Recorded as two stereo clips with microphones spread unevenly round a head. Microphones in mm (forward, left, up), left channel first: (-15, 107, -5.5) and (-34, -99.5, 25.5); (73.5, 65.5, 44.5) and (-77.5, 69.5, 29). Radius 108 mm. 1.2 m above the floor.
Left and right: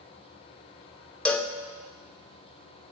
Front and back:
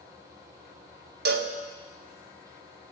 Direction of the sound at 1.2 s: 175° left.